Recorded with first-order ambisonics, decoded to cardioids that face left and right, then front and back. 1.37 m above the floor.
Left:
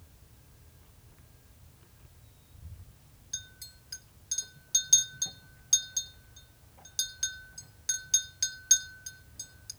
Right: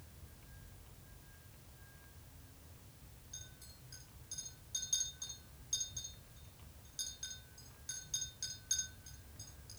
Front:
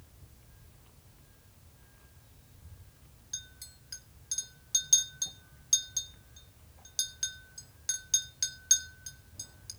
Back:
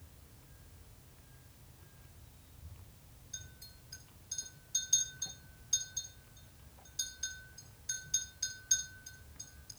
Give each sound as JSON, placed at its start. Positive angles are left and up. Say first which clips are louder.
{"t": 3.3, "sound": "a clink", "louder": "left 12 dB, front 6 dB", "azimuth_deg": 40, "distance_m": 3.0}